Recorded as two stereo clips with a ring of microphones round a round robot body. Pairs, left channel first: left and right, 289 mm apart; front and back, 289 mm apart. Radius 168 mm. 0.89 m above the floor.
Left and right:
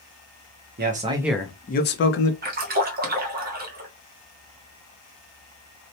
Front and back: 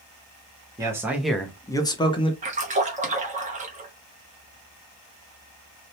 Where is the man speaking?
110° right, 0.7 m; by 2.3 s 70° left, 0.9 m.